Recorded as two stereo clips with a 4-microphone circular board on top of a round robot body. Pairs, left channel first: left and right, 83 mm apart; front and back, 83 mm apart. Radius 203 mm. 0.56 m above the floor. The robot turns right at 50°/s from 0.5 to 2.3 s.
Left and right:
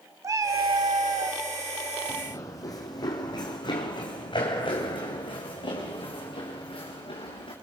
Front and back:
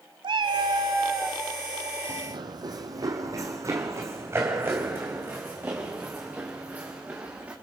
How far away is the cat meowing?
About 0.7 m.